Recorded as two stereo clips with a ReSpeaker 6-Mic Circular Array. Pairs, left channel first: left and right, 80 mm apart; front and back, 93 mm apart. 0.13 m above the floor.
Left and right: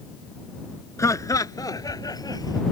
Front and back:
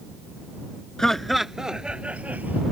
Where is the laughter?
80° left; by 2.6 s 110° left.